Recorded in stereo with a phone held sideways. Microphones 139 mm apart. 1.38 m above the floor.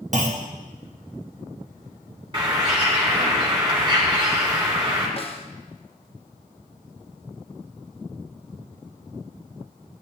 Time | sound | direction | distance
0.1 | a clunk | 55° right (ahead or behind) | 1.2 m
2.3 | a bird | 35° right (ahead or behind) | 2.5 m
5.2 | a snare drum | 40° left (ahead or behind) | 1.0 m